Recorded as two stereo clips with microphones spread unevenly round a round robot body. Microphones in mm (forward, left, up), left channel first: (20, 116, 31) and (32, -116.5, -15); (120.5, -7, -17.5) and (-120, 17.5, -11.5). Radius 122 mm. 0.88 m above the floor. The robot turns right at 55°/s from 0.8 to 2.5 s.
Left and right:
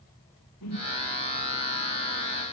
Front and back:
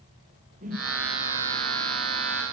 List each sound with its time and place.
0.6 s a whoosh: 115° left, 4 m; by 0.9 s 120° left, 4 m